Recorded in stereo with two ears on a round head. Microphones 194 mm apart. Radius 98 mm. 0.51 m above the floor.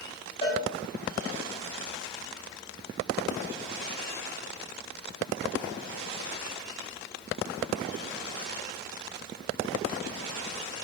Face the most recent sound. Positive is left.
turn(degrees=25)  # may be behind; listen again after turning